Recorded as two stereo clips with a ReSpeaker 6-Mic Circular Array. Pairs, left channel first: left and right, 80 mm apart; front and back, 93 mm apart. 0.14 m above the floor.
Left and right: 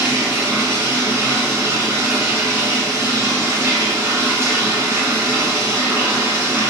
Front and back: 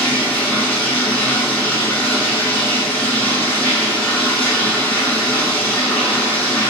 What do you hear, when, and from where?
0.0 s running water: 55° right, 1.2 m